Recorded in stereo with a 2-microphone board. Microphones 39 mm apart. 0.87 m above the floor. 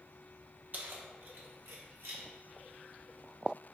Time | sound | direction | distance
0.7 | keys jangling | 45° right (ahead or behind) | 0.6 m